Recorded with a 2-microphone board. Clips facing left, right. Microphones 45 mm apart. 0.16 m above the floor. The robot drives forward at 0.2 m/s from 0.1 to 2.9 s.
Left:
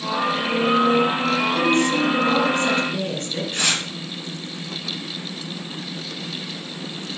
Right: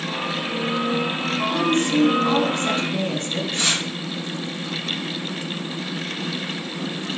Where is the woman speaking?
30° right (ahead or behind), 1.8 m; by 3.4 s 35° right (ahead or behind), 1.7 m.